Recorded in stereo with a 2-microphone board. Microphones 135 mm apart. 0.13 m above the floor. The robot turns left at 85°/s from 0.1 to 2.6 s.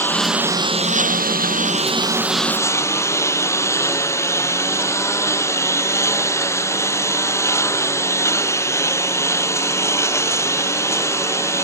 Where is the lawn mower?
15° left; by 11.7 s 160° left.